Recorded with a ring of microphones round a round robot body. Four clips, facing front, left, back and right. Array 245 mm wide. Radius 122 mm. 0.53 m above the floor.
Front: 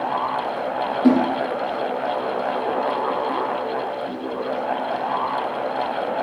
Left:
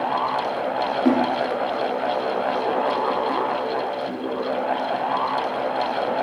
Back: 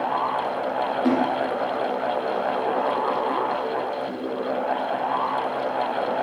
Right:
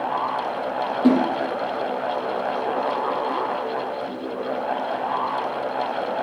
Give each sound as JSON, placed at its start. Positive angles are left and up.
{"t": 1.0, "sound": "a splash", "azimuth_deg": -60, "distance_m": 4.0}